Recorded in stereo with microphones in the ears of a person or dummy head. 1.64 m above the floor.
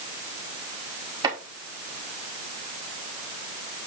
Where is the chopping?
25° right (ahead or behind), 2.5 m.